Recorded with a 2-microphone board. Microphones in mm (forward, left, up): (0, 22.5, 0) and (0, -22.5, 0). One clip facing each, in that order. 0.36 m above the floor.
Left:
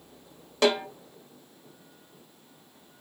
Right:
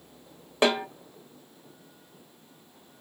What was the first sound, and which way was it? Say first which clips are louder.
A snare drum: even; 20° right (ahead or behind).